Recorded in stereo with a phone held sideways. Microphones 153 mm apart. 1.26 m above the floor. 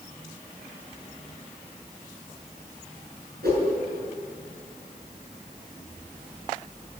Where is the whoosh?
85° right, 7.5 m.